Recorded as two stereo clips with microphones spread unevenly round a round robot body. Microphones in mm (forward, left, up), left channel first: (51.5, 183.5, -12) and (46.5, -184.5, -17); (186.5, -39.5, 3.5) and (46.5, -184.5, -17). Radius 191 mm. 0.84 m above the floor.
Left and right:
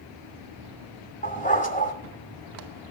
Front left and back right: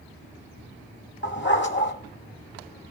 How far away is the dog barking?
About 1.4 m.